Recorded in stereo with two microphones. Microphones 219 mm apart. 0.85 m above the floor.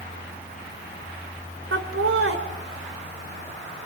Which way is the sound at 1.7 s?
75° right (ahead or behind).